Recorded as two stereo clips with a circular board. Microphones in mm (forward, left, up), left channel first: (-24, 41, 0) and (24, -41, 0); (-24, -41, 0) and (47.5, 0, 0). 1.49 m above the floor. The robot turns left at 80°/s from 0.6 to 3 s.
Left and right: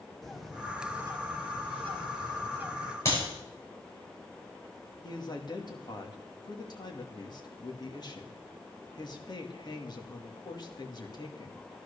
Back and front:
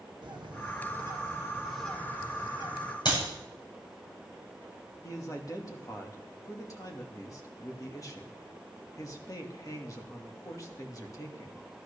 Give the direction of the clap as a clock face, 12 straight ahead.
6 o'clock.